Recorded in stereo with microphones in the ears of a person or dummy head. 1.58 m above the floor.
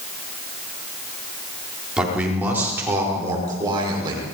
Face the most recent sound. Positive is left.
turn(degrees=-30)  # may be behind; listen again after turning